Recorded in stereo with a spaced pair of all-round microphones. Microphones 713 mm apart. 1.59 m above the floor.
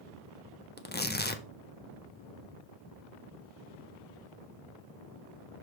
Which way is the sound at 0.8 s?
15° left (ahead or behind).